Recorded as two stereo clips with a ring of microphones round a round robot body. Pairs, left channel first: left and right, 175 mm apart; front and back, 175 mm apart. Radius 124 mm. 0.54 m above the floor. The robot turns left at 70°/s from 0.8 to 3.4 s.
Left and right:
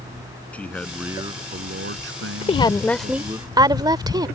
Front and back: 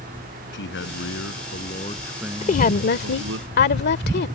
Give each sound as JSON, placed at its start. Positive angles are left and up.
{"t": 0.5, "sound": "a man speaking", "azimuth_deg": 5}
{"t": 2.4, "sound": "a woman speaking", "azimuth_deg": 45}